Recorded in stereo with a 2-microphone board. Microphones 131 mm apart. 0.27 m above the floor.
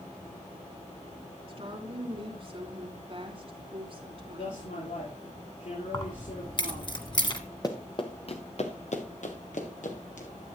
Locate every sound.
1.5 s a woman speaking: 45° right (ahead or behind), 3 m
4.4 s a man speaking: 75° left (ahead or behind), 5.5 m
5.9 s keys jangling: 35° left (ahead or behind), 1.4 m
7.6 s running footsteps: 30° left (ahead or behind), 1.3 m; by 10.3 s 75° left (ahead or behind), 3 m